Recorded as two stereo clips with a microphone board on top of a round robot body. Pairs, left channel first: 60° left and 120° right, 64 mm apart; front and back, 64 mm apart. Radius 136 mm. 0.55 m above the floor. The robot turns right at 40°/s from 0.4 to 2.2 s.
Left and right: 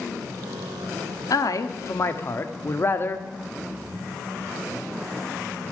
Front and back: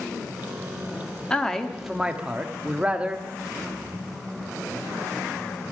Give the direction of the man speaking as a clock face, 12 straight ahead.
10 o'clock.